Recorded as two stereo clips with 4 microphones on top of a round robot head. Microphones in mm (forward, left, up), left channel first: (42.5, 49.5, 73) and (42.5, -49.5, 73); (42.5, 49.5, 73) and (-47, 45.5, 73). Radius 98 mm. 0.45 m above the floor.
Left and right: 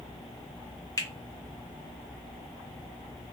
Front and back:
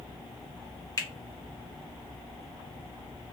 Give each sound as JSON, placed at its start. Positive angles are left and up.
{"t": 1.0, "sound": "a finger snap", "azimuth_deg": 45, "distance_m": 1.0}